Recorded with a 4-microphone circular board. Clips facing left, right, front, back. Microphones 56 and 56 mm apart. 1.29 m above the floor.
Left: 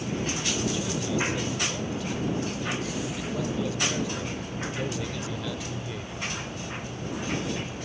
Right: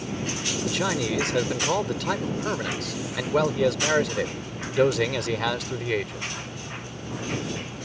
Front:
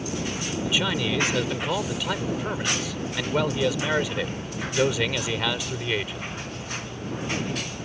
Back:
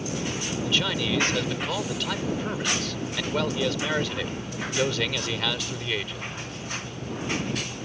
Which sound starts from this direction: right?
A man speaking, at 0.6 s.